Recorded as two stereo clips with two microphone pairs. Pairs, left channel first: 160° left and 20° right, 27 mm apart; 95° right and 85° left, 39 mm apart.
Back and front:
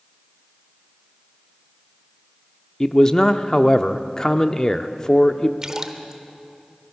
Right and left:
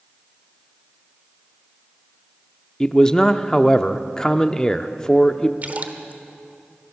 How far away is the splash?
About 1.2 m.